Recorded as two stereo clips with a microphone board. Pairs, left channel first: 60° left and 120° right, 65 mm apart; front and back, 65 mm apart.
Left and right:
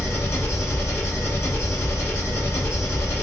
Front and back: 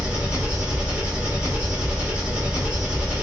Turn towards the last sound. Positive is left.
turn(degrees=110)